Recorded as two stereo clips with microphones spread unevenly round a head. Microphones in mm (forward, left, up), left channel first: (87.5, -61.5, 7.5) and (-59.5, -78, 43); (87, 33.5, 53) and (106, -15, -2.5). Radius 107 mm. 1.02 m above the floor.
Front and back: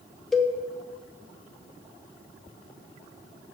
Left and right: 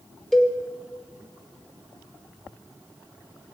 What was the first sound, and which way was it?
A cowbell, 65° right.